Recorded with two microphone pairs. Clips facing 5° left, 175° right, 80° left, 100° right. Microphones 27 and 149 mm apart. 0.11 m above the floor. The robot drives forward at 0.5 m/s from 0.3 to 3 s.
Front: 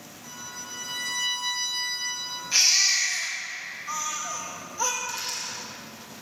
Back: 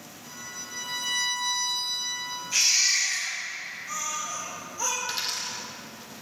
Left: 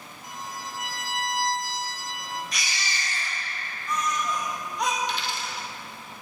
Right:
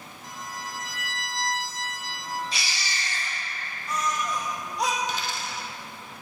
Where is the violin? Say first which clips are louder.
Front 1 dB, left 1 dB; 10° left, 2.5 m; by 2.4 s 15° left, 1.8 m.